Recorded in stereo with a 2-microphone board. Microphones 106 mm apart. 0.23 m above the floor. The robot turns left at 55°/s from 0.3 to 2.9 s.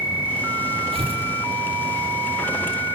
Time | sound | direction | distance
0.9 | tearing paper | 70° right (ahead or behind) | 7 m